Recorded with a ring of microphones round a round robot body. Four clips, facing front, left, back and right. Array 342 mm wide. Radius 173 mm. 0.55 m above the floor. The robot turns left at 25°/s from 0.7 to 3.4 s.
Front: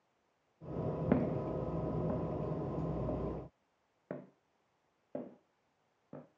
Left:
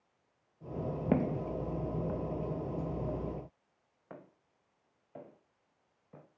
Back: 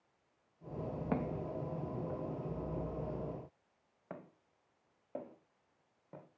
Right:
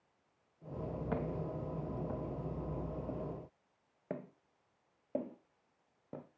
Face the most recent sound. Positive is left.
turn(degrees=-70)